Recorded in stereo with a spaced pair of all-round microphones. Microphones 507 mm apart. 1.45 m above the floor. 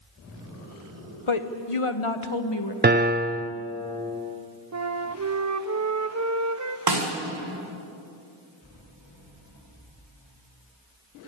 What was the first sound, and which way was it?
A woman speaking, 65° left (ahead or behind).